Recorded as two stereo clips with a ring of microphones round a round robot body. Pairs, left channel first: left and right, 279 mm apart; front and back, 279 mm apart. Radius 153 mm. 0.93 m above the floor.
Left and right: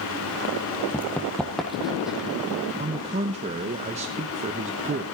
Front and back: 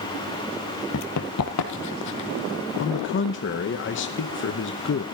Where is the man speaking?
30° right, 0.8 m.